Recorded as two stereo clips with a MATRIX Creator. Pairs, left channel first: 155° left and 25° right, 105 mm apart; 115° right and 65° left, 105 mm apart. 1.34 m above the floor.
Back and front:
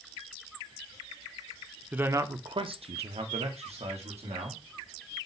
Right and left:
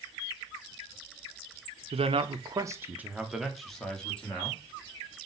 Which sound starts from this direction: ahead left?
A man speaking, at 1.9 s.